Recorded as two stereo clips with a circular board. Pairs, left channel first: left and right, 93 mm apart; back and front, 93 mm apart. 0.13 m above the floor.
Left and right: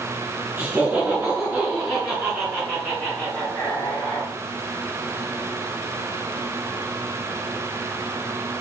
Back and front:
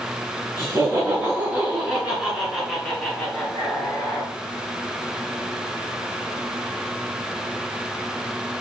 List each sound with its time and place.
0.6 s laughter: 20° right, 1.9 m; by 4.3 s 155° left, 1.8 m